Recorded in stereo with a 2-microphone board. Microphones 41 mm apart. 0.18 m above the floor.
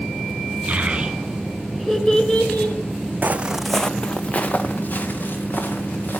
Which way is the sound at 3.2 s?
45° right (ahead or behind).